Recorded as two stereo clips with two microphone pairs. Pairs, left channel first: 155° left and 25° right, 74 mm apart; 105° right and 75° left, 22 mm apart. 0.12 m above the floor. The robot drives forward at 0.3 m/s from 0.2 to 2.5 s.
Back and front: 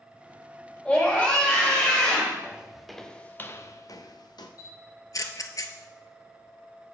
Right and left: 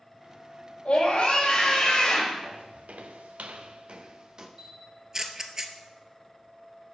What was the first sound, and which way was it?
A scream, 135° right.